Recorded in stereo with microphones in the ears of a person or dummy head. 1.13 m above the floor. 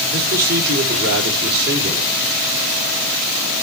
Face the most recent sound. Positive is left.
turn(degrees=-55)  # may be behind; listen again after turning